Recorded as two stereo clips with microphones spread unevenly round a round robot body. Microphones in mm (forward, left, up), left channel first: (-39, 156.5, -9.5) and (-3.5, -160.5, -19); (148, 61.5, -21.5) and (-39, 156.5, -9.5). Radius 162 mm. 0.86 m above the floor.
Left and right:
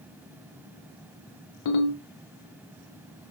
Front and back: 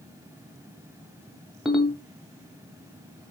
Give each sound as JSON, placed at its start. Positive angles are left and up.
{"t": 1.6, "sound": "a ringtone", "azimuth_deg": 65, "distance_m": 0.9}